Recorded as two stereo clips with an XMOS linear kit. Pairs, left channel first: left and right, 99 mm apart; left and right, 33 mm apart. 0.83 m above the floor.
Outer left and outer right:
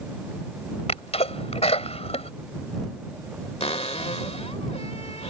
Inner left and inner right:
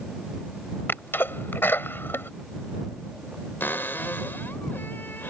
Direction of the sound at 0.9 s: 85° left.